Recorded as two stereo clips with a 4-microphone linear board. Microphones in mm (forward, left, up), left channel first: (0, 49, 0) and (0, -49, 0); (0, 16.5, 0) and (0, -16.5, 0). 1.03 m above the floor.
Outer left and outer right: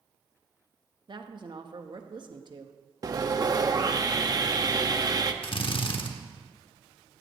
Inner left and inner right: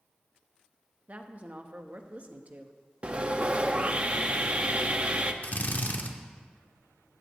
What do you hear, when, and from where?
1.1 s a woman speaking: 55° right (ahead or behind), 1.1 m
3.0 s sawing: 40° right (ahead or behind), 0.7 m
5.4 s a drill: 65° left (ahead or behind), 1.0 m